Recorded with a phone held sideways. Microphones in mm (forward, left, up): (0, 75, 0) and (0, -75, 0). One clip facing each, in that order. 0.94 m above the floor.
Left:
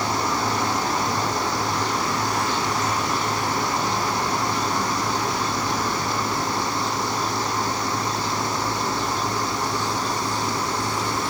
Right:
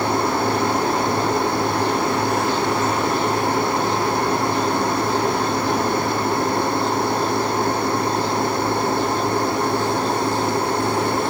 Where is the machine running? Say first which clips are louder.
Right 5 dB; 60° right (ahead or behind).